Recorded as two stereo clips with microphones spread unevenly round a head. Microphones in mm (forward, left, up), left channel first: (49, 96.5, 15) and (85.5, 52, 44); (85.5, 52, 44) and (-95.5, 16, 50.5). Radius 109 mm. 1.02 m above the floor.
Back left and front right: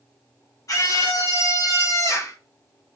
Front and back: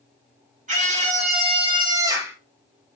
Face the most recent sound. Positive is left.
turn(degrees=110)